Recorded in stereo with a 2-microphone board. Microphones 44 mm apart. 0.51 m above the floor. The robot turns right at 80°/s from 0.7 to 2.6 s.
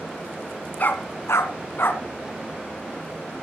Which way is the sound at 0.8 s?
35° left (ahead or behind).